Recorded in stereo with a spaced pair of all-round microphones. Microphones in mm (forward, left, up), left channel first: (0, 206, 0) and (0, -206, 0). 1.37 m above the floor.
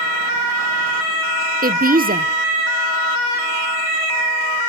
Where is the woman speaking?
20° right (ahead or behind), 0.8 m.